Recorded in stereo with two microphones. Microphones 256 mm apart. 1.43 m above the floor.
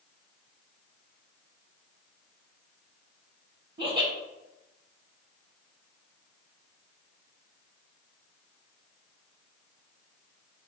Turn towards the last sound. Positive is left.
turn(degrees=-40)  # may be behind; listen again after turning